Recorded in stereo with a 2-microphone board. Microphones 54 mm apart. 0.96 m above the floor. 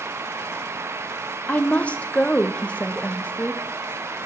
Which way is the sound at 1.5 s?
25° left (ahead or behind).